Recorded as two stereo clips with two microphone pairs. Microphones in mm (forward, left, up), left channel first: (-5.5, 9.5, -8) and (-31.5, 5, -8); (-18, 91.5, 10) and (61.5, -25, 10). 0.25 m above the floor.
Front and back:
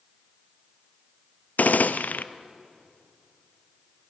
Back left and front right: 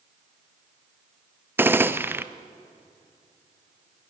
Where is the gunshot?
20° left, 0.8 m.